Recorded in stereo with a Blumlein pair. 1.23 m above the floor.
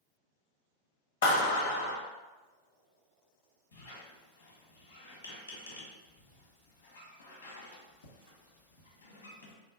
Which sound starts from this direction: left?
A squeak, at 3.7 s.